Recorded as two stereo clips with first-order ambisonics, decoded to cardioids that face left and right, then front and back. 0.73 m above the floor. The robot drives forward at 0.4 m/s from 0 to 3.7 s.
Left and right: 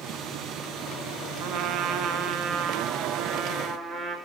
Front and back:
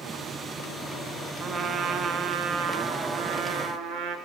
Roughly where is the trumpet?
Behind right.